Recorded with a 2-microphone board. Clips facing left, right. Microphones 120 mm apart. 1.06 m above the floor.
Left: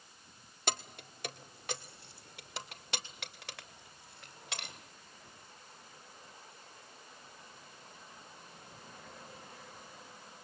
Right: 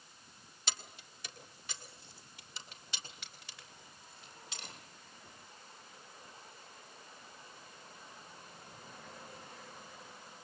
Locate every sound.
0.7 s keys jangling: 55° left (ahead or behind), 1.4 m; by 4.8 s 70° left (ahead or behind), 3.5 m